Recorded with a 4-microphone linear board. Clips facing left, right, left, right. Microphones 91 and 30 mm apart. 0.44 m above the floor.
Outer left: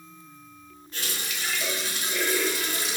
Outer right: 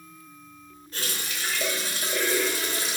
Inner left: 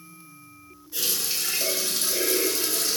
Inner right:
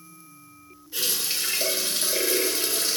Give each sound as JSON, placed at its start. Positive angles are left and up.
{"t": 0.9, "sound": "a running tap", "side_deg": -35, "distance_m": 1.0}